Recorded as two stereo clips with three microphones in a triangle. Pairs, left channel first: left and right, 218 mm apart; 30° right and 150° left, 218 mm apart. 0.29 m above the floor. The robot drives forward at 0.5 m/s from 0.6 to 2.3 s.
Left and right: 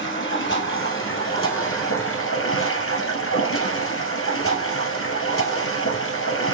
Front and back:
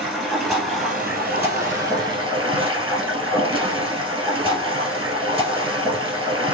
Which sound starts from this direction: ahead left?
Running water, at 0.0 s.